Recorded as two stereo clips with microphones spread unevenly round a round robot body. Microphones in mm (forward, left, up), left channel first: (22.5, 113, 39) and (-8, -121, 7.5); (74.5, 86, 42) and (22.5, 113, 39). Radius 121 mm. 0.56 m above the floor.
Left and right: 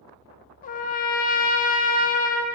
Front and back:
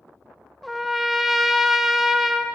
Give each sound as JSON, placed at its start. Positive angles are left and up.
{"t": 0.6, "sound": "a trumpet", "azimuth_deg": 70, "distance_m": 0.6}